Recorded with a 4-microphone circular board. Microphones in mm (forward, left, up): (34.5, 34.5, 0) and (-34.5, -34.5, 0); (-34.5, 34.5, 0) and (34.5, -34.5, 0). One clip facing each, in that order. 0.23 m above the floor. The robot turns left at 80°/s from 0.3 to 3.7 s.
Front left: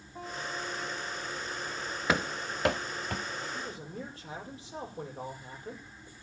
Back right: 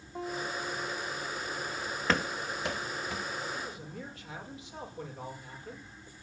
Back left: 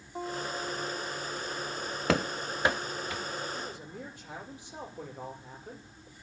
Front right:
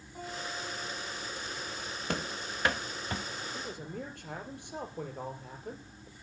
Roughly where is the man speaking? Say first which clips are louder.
Front left 1 dB, even; ahead.